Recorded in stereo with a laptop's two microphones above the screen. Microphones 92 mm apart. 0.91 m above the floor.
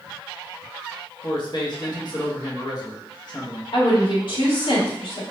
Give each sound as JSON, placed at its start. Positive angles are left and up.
{"t": 1.2, "sound": "a man speaking", "side_deg": 50, "distance_m": 1.0}
{"t": 3.7, "sound": "a woman speaking", "side_deg": 60, "distance_m": 2.0}